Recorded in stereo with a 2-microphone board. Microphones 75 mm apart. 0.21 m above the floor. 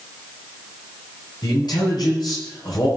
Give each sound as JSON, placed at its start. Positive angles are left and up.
{"t": 1.4, "sound": "a man speaking", "side_deg": 65, "distance_m": 5.5}